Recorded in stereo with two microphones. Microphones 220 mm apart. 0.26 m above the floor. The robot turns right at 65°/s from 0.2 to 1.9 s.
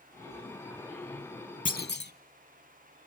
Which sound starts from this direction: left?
A clunk, at 1.6 s.